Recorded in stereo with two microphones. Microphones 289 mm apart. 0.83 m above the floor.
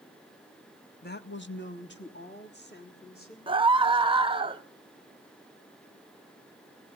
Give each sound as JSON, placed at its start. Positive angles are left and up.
{"t": 1.0, "sound": "a woman speaking", "side_deg": 35, "distance_m": 0.6}
{"t": 3.5, "sound": "a scream", "side_deg": -15, "distance_m": 0.8}